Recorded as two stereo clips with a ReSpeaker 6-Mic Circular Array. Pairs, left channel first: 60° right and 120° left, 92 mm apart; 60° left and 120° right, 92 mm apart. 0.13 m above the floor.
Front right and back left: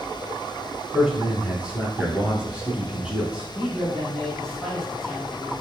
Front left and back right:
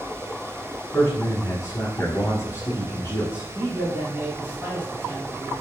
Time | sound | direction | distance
0.9 | a man speaking | 50° left | 1.3 m
3.5 | a man speaking | 140° right | 1.5 m